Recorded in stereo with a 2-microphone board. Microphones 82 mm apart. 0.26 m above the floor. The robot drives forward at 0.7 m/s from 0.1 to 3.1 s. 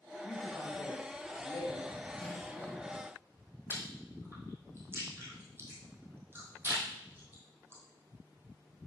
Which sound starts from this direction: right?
Chewing, at 3.7 s.